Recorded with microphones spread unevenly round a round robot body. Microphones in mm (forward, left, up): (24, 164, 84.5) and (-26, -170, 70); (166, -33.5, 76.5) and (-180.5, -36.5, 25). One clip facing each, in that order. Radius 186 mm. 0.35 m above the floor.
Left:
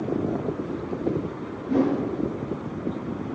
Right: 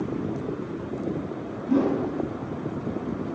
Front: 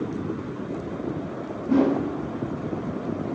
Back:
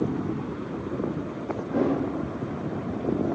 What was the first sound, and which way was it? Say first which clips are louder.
A whoosh: even, front 5 dB; 25° right.